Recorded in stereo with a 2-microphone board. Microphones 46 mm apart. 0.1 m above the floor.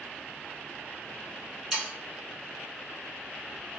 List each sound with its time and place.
1.7 s sawing: 5° right (ahead or behind), 1.9 m